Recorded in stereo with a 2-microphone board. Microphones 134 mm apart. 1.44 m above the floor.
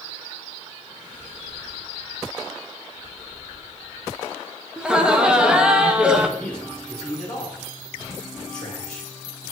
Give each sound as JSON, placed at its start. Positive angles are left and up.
{"t": 4.8, "sound": "laughter", "side_deg": -5, "distance_m": 0.9}
{"t": 6.4, "sound": "a man speaking", "side_deg": 10, "distance_m": 4.0}